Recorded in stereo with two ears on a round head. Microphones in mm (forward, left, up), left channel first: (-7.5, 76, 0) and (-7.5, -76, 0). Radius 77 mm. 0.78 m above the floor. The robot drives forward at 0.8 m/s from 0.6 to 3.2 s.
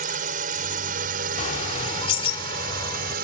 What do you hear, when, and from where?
0.0 s a drone: 50° right (ahead or behind); by 3.2 s 60° right (ahead or behind)
1.4 s a bird: 45° left (ahead or behind); by 3.1 s 25° left (ahead or behind)